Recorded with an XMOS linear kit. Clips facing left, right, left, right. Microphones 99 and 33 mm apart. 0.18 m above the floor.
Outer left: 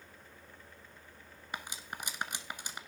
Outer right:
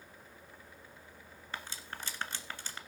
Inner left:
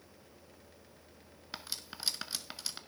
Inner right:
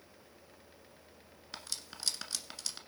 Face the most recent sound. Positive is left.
turn(degrees=15)  # may be behind; listen again after turning